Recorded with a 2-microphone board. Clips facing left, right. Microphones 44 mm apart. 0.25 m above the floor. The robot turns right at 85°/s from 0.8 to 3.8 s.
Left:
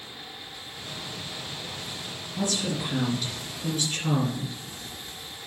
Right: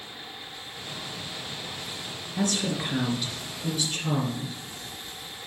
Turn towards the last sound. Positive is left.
turn(degrees=40)